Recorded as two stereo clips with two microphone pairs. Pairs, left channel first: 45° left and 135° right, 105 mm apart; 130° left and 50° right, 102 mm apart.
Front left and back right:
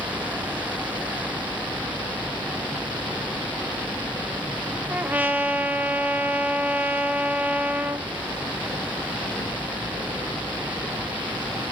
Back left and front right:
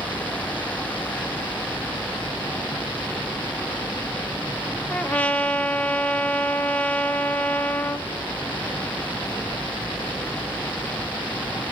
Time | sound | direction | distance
4.9 | a trumpet | 175° left | 1.0 m